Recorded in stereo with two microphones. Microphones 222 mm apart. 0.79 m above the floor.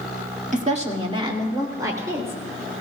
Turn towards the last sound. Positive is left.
turn(degrees=-10)  # may be behind; listen again after turning